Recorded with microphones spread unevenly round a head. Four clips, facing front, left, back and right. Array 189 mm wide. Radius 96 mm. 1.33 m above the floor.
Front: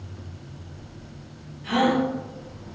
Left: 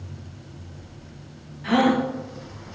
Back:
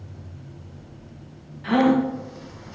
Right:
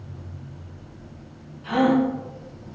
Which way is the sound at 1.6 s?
140° left.